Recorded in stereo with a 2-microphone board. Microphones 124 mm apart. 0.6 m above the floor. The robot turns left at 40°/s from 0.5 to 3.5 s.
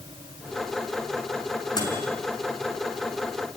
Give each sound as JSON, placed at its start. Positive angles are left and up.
{"t": 1.8, "sound": "a microwave", "side_deg": 35, "distance_m": 4.5}